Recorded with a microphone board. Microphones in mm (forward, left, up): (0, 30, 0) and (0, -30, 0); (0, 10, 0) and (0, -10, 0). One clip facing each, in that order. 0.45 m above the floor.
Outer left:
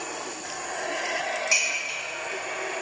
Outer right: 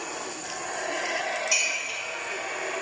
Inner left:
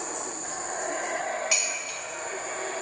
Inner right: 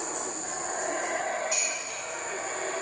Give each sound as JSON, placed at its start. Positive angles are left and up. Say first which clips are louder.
{"t": 1.5, "sound": "dishes clattering", "louder": "outer left 2 dB, inner left 3 dB", "side_deg": 65, "distance_m": 1.4}